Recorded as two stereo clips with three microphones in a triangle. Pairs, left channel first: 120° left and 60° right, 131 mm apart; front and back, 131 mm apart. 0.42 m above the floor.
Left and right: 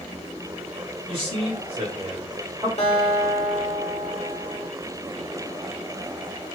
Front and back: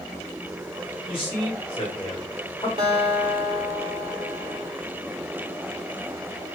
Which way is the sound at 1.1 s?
35° right.